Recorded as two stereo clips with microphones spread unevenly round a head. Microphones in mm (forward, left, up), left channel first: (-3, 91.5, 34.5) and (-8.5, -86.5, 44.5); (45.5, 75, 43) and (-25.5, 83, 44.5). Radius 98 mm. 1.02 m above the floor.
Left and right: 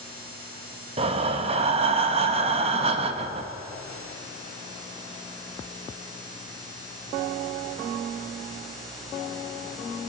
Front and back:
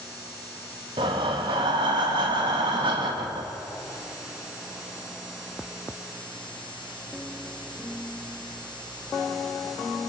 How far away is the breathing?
About 0.7 m.